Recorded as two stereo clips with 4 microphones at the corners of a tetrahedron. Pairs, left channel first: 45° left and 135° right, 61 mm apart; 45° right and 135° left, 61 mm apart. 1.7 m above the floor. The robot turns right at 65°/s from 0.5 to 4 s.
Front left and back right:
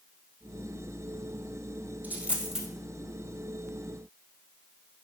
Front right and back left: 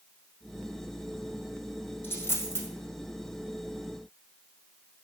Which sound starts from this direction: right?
A dropped coin, at 2.0 s.